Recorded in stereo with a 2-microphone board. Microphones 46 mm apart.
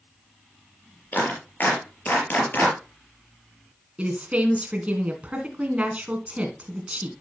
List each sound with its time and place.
1.1 s a clap: 45° left (ahead or behind), 4.5 m
4.0 s a woman speaking: 30° right (ahead or behind), 2.5 m